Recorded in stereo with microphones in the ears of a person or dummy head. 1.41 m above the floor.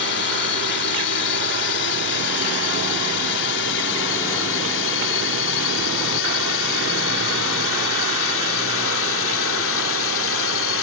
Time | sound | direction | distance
0.0 | a drone | 65° left (ahead or behind) | ?